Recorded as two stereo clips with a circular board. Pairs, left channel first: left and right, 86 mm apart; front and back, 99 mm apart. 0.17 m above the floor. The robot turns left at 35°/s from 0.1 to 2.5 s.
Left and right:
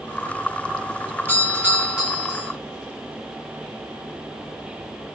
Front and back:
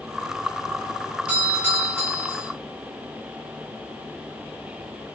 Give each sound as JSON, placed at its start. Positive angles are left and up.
{"t": 1.3, "sound": "a doorbell", "azimuth_deg": -120, "distance_m": 1.7}